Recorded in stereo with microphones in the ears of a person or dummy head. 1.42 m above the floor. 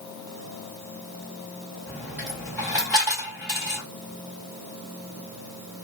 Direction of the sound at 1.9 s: 5° right (ahead or behind).